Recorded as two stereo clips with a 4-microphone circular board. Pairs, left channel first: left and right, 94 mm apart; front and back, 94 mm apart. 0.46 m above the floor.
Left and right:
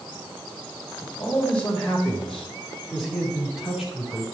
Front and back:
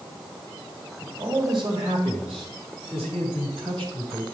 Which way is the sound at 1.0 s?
160° left.